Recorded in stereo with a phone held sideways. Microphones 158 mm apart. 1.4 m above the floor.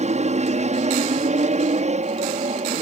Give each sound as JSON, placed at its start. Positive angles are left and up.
{"t": 0.0, "sound": "an aircraft", "side_deg": -45}